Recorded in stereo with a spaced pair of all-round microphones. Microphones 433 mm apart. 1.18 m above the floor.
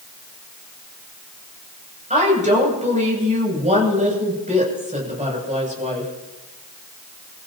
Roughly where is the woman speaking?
Centre.